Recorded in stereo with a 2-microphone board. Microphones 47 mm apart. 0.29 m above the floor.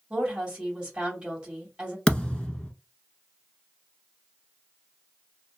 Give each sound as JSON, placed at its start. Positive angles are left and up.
{"t": 0.1, "sound": "a woman speaking", "side_deg": -20, "distance_m": 2.0}
{"t": 2.1, "sound": "a thud", "side_deg": 20, "distance_m": 0.8}